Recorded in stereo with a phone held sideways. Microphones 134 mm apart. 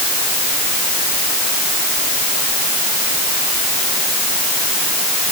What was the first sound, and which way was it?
Only background noise.